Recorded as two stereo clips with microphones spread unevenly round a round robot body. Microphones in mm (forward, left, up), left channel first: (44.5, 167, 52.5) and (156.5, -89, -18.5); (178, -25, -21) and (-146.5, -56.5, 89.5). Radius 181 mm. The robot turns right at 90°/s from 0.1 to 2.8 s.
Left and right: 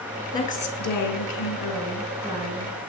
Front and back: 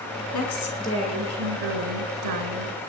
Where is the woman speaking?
30° left, 3.5 m; by 2.8 s 110° right, 3.5 m.